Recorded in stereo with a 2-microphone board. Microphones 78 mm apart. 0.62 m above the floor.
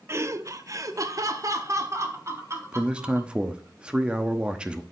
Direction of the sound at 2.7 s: 15° right (ahead or behind).